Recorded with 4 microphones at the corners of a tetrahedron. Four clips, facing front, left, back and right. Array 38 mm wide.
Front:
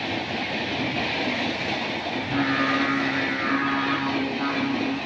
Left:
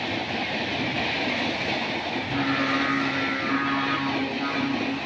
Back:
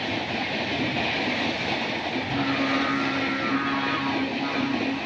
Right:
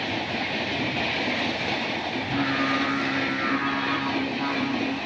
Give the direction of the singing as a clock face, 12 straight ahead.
12 o'clock.